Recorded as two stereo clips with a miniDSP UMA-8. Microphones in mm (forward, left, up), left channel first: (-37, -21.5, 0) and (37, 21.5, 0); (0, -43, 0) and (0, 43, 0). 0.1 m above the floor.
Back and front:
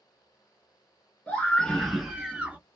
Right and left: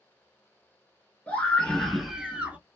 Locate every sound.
1.3 s a scream: 110° right, 1.2 m; by 2.6 s 65° left, 1.1 m